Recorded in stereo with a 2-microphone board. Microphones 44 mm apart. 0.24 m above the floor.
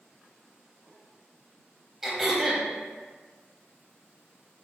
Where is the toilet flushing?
I don't hear a toilet flushing.